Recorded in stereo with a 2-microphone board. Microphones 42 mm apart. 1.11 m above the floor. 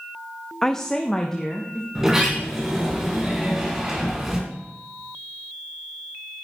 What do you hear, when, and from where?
0.6 s a woman speaking: 10° left (ahead or behind), 0.6 m; by 1.9 s 15° left (ahead or behind), 2 m
1.9 s a sliding door: 10° right (ahead or behind), 3 m